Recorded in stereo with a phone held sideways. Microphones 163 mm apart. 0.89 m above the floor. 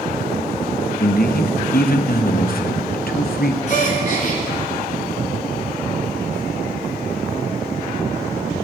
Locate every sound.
1.0 s a man speaking: 65° left (ahead or behind), 0.6 m
3.7 s a gasp: 55° left (ahead or behind), 1.4 m